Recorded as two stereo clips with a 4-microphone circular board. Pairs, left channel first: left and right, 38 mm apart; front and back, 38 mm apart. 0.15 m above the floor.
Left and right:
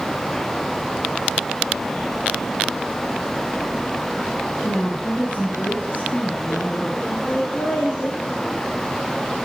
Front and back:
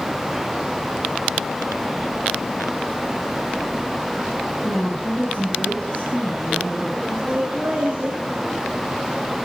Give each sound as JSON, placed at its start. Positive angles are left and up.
{"t": 4.6, "sound": "a woman speaking", "azimuth_deg": 55, "distance_m": 3.0}
{"t": 7.3, "sound": "laughter", "azimuth_deg": 120, "distance_m": 3.5}